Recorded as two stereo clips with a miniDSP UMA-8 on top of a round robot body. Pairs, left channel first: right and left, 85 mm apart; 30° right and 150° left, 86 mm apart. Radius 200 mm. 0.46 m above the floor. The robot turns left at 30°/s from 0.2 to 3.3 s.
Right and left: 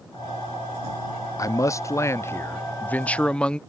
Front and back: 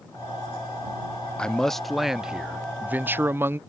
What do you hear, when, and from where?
1.4 s a man speaking: 105° right; by 3.6 s 160° right